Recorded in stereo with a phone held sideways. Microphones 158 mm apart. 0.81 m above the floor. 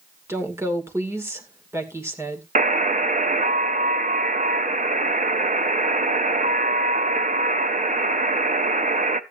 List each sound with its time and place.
0.3 s a woman speaking: 15° right (ahead or behind), 2.5 m
2.5 s a buzzer: 55° right (ahead or behind), 0.6 m